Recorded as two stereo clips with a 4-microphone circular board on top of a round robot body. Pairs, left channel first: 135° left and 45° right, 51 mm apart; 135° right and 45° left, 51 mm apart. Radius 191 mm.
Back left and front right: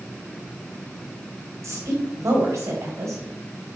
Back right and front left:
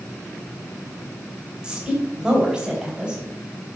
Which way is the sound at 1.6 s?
25° right.